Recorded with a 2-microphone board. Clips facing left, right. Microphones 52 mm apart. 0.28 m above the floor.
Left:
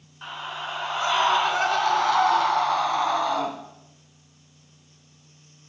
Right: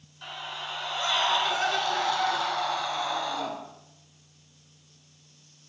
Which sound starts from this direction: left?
A scream, at 0.2 s.